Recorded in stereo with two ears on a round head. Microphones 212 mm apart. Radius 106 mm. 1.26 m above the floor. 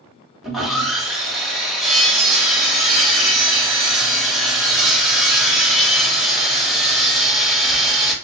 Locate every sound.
0.4 s sawing: centre (ahead or behind), 1.0 m